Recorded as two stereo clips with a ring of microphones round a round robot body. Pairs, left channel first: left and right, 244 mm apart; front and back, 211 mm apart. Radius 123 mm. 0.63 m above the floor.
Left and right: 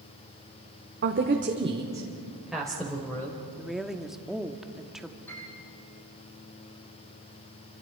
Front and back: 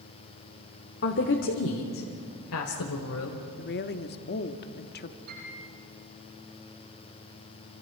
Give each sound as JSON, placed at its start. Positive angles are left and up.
{"t": 1.0, "sound": "a woman speaking", "azimuth_deg": -45, "distance_m": 1.6}
{"t": 3.6, "sound": "a woman speaking", "azimuth_deg": -5, "distance_m": 1.3}
{"t": 5.3, "sound": "a piano", "azimuth_deg": 170, "distance_m": 9.0}